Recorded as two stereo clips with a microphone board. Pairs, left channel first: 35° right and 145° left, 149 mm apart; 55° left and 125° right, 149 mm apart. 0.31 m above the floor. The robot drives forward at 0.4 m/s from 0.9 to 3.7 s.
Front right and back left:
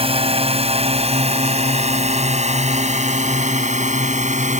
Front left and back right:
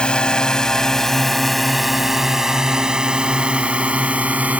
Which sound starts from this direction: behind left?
A drone, at 0.0 s.